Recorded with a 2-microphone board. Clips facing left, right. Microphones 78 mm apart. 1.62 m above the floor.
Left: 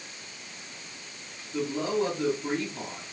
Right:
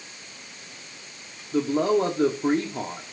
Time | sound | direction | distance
1.5 | a man speaking | 55° right (ahead or behind) | 1.5 m